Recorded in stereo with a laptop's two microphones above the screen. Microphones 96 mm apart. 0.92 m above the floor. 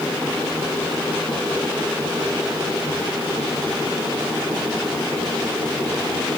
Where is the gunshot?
I don't hear a gunshot.